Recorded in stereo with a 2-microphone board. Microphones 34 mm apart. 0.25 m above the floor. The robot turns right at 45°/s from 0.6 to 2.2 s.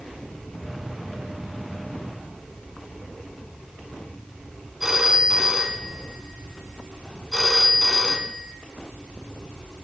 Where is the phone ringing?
10° right (ahead or behind), 1.4 m.